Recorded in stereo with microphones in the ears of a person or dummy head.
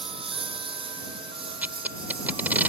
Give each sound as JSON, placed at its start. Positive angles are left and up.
{"t": 0.0, "sound": "a lawn mower", "side_deg": -30}
{"t": 1.6, "sound": "tape being pulled", "side_deg": -10}